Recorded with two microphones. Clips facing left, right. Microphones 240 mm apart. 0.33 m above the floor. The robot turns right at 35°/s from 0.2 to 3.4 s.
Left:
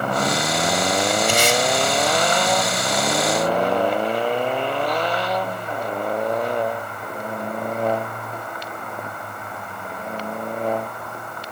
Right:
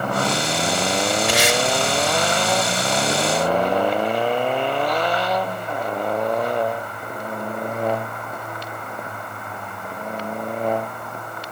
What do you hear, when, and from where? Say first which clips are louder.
1.3 s tape being pulled: even; 75° right (ahead or behind), 3.5 m